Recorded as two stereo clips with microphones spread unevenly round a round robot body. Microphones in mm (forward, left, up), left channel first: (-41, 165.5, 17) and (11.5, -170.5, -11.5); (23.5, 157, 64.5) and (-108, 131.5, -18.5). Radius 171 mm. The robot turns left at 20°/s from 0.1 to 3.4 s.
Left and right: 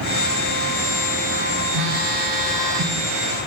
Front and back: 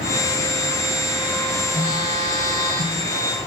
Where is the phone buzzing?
100° right, 9.5 m; by 3.0 s 125° right, 9.5 m.